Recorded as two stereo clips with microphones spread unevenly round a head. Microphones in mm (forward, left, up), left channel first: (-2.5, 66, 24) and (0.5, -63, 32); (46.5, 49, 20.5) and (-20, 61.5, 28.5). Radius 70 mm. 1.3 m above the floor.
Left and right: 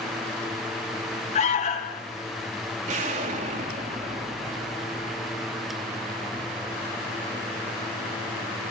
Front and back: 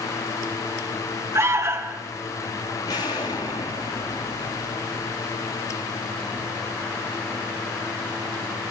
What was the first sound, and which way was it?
An alarm, 125° left.